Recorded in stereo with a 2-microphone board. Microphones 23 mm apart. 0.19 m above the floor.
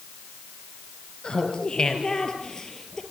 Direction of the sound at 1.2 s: 45° left (ahead or behind).